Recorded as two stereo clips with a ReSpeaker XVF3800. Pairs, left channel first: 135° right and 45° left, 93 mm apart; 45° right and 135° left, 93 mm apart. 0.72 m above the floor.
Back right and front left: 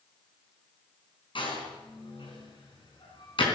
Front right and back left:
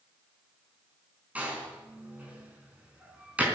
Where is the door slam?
150° right, 4.5 m.